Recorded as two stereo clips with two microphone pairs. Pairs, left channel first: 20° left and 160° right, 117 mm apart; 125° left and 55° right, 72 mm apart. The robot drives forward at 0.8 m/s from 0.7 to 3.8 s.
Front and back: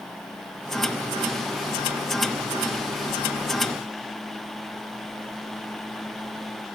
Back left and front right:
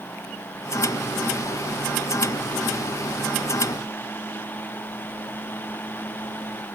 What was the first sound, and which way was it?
Only background noise.